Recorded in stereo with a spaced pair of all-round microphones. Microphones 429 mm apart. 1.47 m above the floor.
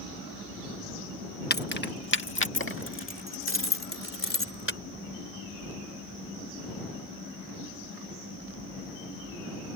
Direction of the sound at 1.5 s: 25° left (ahead or behind).